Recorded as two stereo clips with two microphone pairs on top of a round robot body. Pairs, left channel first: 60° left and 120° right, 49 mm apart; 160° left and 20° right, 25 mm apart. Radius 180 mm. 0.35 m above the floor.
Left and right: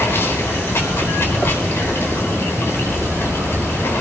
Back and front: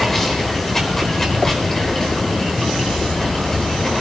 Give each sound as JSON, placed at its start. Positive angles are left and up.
{"t": 0.0, "sound": "running water", "azimuth_deg": 85, "distance_m": 4.5}